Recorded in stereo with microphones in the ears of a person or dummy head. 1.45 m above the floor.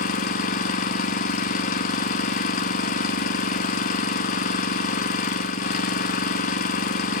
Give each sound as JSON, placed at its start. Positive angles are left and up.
{"t": 0.0, "sound": "an engine running", "side_deg": 45, "distance_m": 1.2}